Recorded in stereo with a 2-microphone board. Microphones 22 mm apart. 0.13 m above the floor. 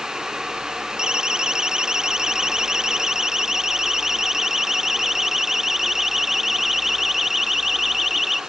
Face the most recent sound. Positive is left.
turn(degrees=-5)  # may be behind; listen again after turning